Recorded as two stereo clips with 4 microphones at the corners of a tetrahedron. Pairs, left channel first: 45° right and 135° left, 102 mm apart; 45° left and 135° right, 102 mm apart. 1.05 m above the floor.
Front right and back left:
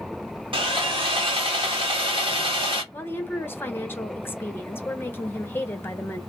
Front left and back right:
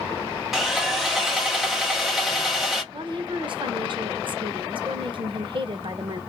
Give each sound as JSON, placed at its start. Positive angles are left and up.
{"t": 0.5, "sound": "sawing", "azimuth_deg": 140, "distance_m": 1.1}
{"t": 2.9, "sound": "a woman speaking", "azimuth_deg": -110, "distance_m": 0.8}